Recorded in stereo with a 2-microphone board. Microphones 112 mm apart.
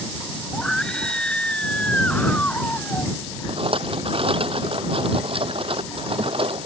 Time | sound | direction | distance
0.5 | a scream | 5° left (ahead or behind) | ?
3.5 | a rattle | 55° right (ahead or behind) | ?